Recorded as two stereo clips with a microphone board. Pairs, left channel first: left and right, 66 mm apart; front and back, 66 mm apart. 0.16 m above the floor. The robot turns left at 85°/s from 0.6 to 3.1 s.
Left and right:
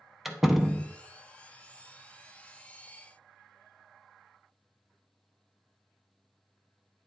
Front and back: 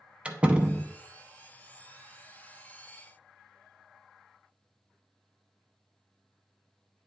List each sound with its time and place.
0.2 s a door slam: 165° right, 0.7 m; by 0.9 s 170° left, 0.7 m